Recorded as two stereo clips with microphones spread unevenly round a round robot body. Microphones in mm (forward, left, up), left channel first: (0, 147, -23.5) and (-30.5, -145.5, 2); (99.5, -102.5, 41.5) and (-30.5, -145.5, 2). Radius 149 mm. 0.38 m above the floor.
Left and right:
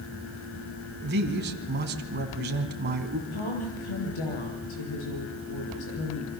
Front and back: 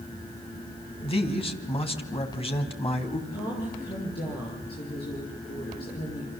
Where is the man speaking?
35° right, 2.5 m.